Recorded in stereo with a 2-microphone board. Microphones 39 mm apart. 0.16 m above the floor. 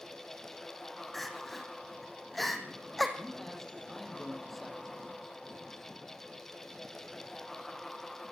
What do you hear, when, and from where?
1.1 s crying: 5° left (ahead or behind), 3 m
3.2 s a man speaking: 5° left (ahead or behind), 6 m